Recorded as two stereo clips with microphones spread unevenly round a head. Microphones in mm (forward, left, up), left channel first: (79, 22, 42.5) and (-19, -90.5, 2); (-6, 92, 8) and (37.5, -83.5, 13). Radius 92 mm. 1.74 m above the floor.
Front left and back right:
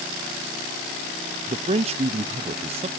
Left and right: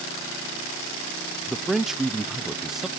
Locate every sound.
1.5 s a man speaking: 155° right, 0.6 m